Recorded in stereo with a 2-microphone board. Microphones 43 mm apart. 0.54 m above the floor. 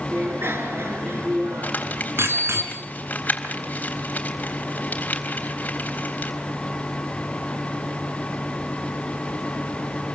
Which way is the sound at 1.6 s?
40° left (ahead or behind).